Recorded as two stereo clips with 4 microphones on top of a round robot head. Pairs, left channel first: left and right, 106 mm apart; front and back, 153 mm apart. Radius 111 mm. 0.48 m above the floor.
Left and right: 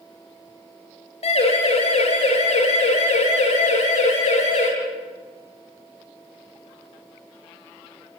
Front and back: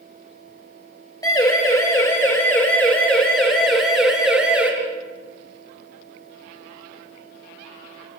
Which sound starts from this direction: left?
A siren, at 1.2 s.